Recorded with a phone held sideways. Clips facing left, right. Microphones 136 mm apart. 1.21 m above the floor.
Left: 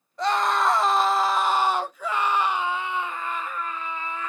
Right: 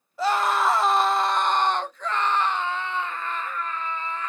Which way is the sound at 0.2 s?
5° right (ahead or behind).